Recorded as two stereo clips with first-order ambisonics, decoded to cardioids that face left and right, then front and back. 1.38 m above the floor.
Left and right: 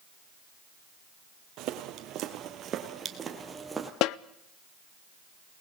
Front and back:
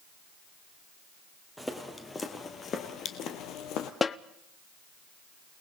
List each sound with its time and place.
1.6 s footsteps: 90° right, 2 m; by 3.9 s 10° right, 2 m
4.0 s a snare drum: 70° left, 0.5 m